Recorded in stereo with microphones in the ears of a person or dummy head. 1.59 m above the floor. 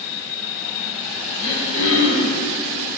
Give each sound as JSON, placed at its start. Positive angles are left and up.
{"t": 1.4, "sound": "throat clearing", "side_deg": 40, "distance_m": 1.6}